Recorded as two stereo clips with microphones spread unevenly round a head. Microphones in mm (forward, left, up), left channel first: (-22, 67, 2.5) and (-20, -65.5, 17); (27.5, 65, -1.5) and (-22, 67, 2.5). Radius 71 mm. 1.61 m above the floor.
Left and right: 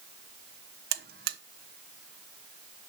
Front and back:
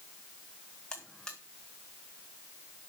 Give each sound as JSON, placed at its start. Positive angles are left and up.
{"t": 0.9, "sound": "a buzzer", "azimuth_deg": -85, "distance_m": 1.1}